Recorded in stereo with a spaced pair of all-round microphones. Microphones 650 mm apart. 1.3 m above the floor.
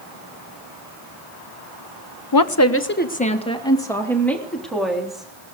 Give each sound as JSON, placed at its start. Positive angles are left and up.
{"t": 2.3, "sound": "a woman speaking", "side_deg": 35, "distance_m": 0.8}